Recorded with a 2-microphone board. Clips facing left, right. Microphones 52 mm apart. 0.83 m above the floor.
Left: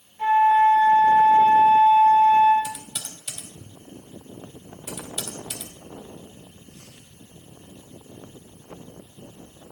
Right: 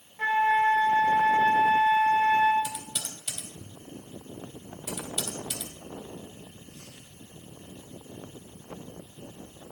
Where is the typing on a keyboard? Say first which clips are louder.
Left 2 dB; 5° left (ahead or behind), 3.5 m.